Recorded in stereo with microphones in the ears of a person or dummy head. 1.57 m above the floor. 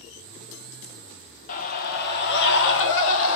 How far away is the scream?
About 1.6 m.